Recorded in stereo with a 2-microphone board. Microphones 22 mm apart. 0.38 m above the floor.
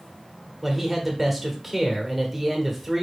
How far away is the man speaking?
About 1.2 m.